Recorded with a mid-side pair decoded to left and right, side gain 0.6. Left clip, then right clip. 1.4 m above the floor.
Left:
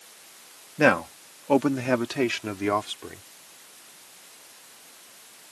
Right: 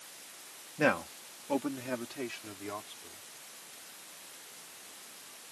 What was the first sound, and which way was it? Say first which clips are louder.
A man speaking: left 8 dB; 40° left.